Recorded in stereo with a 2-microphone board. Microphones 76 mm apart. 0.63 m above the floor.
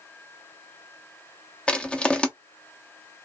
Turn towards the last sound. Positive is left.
turn(degrees=15)  # may be behind; listen again after turning